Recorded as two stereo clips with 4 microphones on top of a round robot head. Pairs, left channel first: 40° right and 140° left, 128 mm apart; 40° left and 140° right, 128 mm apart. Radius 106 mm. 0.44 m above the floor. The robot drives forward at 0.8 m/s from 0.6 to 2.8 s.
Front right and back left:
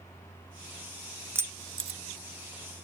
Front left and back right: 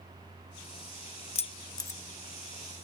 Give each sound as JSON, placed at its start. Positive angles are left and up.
{"t": 1.4, "sound": "keys jangling", "azimuth_deg": 65}